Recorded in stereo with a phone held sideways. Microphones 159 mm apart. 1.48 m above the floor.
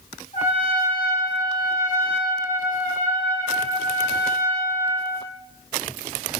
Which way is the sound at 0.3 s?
50° left (ahead or behind).